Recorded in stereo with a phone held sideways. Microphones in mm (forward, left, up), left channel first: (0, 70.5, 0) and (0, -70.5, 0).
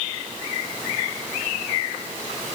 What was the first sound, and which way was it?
Only background noise.